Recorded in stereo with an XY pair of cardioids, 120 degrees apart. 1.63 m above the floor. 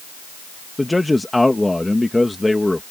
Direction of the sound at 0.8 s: 10° left.